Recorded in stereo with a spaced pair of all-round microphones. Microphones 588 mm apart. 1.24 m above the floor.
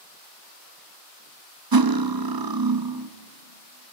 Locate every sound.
1.7 s cutlery clinking: 40° right (ahead or behind), 0.7 m